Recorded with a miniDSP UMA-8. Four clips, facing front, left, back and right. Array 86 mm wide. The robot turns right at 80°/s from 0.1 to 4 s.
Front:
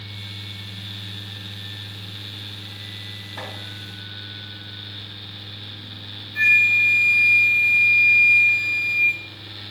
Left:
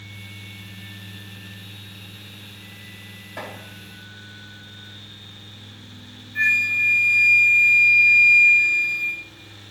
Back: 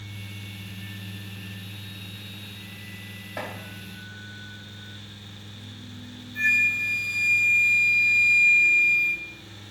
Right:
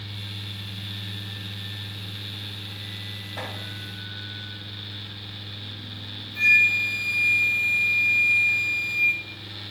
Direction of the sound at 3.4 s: 155° left.